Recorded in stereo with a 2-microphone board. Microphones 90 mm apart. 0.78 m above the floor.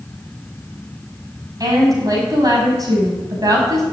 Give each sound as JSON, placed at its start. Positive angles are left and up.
{"t": 1.6, "sound": "a woman speaking", "side_deg": -45, "distance_m": 5.5}